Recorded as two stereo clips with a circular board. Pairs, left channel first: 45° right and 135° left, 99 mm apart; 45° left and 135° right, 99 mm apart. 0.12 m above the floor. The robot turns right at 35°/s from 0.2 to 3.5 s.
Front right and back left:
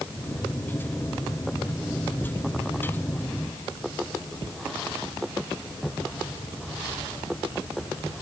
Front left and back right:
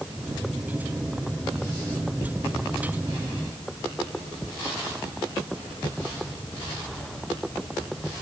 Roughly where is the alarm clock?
No alarm clock in this recording.